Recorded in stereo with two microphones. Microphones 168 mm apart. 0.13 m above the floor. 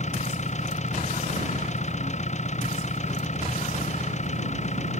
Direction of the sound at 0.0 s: 45° left (ahead or behind).